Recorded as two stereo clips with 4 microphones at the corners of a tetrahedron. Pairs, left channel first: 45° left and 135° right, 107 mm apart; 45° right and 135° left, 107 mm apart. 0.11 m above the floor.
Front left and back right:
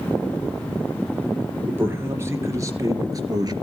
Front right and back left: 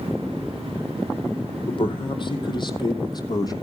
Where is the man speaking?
70° right, 3 m; by 3.5 s 90° right, 3 m.